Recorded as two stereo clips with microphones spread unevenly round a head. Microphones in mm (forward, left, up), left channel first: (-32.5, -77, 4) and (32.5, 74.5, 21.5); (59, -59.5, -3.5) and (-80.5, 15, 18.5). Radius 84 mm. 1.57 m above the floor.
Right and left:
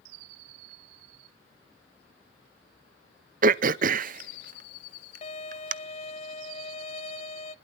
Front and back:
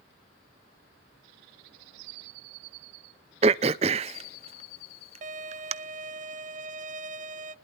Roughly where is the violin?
Behind.